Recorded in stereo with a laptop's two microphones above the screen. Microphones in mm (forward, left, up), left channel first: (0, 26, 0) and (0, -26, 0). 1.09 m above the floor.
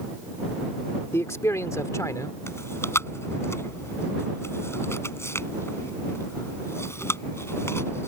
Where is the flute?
I don't hear a flute.